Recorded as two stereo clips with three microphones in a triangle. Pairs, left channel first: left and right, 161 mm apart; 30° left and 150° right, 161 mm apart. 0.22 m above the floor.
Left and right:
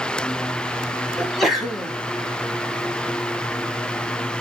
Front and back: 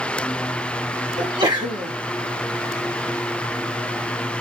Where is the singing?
No singing in this recording.